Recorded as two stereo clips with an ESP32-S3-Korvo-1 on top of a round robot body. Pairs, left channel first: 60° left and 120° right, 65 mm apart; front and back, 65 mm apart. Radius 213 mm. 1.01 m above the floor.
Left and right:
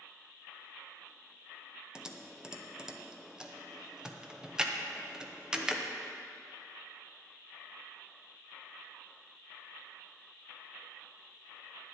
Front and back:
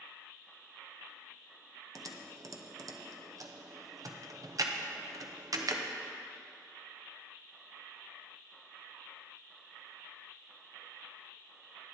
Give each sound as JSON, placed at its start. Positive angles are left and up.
{"t": 1.9, "sound": "typing on a keyboard", "azimuth_deg": 160, "distance_m": 0.9}